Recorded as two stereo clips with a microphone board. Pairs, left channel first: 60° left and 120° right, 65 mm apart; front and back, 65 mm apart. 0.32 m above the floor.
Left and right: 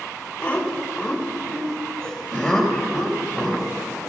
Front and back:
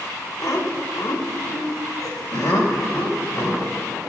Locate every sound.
0.4 s laughter: 5° right, 1.7 m; by 3.8 s 30° right, 5.5 m